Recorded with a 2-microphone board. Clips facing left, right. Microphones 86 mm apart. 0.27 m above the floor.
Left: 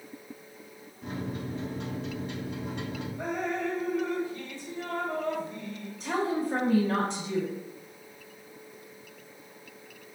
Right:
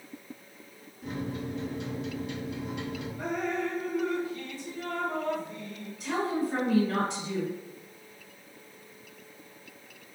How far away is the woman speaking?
About 1.6 m.